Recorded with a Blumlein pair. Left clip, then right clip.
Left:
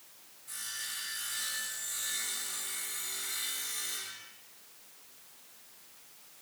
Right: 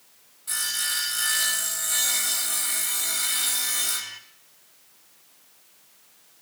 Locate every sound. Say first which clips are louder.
0.5 s sawing: right 12 dB; 50° right, 2.5 m